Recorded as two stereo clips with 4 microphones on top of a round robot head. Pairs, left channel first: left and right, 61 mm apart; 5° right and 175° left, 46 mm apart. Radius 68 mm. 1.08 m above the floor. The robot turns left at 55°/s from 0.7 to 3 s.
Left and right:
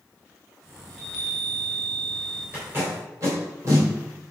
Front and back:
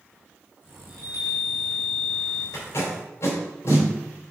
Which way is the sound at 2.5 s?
20° right.